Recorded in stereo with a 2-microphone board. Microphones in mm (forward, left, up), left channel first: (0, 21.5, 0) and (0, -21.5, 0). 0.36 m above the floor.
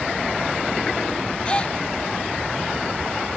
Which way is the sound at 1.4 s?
25° left (ahead or behind).